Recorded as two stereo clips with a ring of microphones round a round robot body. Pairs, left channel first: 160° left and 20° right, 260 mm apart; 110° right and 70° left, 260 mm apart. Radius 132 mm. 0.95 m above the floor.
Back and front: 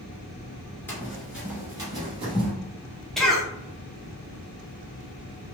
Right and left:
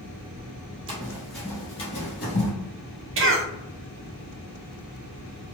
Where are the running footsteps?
90° left, 0.9 m; by 2.5 s 85° right, 1.2 m.